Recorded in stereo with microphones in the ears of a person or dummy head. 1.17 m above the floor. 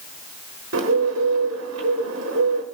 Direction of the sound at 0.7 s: 75° right (ahead or behind).